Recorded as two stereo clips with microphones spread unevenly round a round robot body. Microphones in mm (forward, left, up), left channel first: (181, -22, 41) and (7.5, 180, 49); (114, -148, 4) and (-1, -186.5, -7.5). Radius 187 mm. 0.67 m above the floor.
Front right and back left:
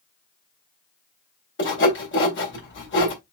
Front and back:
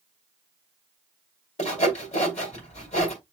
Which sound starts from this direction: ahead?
Sawing, at 1.6 s.